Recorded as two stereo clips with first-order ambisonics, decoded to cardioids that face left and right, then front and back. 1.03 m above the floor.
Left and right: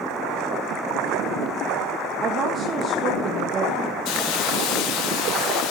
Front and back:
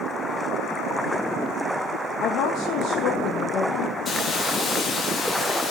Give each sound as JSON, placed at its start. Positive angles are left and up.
{"t": 2.2, "sound": "a woman speaking", "azimuth_deg": -35, "distance_m": 1.4}
{"t": 4.0, "sound": "a hiss", "azimuth_deg": 65, "distance_m": 1.9}